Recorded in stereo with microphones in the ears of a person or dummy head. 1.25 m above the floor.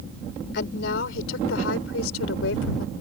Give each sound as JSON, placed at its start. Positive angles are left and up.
{"t": 0.5, "sound": "a woman speaking", "side_deg": 70}